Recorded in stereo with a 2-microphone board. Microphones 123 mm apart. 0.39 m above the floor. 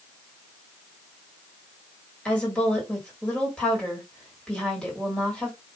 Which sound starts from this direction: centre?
A woman speaking, at 2.2 s.